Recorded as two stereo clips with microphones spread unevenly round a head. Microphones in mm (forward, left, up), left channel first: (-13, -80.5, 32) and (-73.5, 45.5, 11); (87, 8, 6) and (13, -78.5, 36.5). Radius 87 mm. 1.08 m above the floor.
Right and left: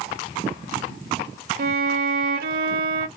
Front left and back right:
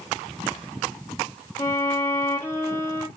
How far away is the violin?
About 1.0 m.